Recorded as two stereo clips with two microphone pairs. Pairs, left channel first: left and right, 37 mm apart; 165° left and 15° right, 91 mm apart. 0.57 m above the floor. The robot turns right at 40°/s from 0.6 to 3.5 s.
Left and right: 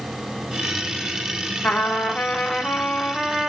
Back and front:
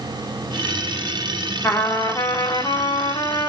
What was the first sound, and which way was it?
A trumpet, 105° left.